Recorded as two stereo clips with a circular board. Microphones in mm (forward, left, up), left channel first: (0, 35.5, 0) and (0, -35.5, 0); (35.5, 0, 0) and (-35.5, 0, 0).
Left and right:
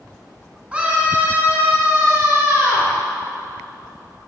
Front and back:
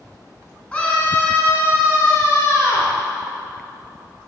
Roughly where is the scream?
Ahead right.